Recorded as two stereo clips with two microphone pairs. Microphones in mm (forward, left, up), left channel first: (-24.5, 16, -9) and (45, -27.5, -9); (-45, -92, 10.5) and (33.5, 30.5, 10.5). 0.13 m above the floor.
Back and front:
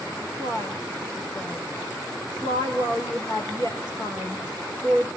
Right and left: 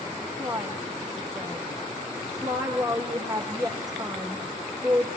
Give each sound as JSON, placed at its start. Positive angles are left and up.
{"t": 0.4, "sound": "a woman speaking", "azimuth_deg": 120, "distance_m": 7.0}